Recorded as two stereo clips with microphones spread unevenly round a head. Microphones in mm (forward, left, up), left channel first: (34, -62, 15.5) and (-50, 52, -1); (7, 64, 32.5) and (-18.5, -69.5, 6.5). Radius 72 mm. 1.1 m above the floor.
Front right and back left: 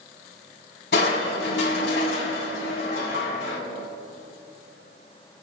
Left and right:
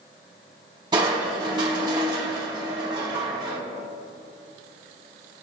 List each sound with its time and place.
0.9 s crushing: 35° right, 3.5 m